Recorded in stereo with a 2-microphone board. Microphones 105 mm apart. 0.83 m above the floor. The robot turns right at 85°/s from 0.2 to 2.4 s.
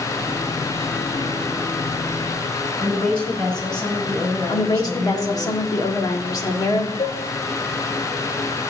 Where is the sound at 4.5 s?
35° left (ahead or behind), 1.6 m.